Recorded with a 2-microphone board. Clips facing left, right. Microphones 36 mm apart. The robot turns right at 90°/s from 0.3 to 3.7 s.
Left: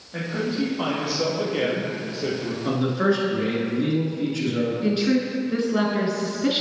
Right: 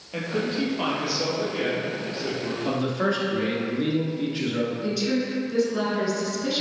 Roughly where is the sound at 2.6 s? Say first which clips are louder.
Left 4 dB; behind left.